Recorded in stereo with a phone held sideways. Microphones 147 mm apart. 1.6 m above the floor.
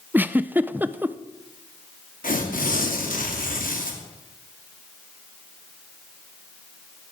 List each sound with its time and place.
0.1 s a giggle: 15° right (ahead or behind), 0.6 m
2.2 s tearing paper: 70° left (ahead or behind), 3 m